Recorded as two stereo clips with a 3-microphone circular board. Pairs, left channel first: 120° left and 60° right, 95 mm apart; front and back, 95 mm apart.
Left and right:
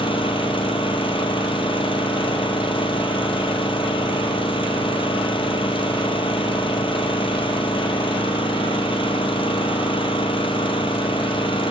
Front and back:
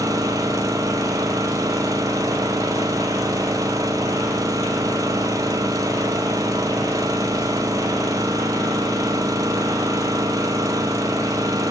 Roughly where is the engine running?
Behind left.